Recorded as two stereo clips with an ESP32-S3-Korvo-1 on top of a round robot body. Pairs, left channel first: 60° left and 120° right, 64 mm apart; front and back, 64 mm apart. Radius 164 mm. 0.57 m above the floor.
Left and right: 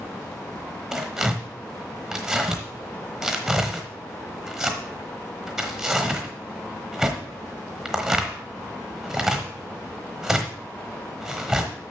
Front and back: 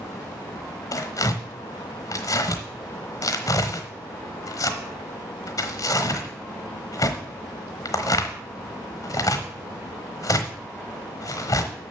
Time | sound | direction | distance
0.9 | tearing paper | 35° right | 1.0 m